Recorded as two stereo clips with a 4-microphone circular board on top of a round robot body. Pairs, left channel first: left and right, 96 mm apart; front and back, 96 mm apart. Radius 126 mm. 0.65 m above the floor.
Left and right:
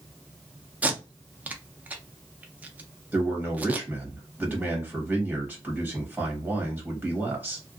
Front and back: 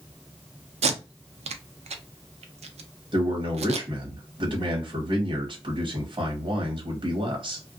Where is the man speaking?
165° right, 1.2 m.